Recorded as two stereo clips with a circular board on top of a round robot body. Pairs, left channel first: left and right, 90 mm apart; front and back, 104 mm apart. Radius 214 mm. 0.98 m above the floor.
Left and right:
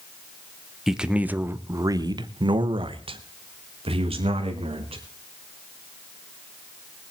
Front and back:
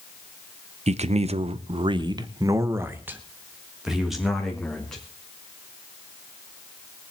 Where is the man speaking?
175° right, 1.1 m; by 5.0 s 85° right, 2.5 m.